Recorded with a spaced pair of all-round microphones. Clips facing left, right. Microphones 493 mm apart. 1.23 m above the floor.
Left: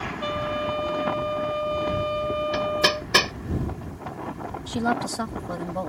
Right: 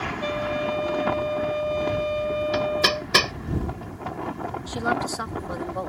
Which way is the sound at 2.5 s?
Centre (ahead or behind).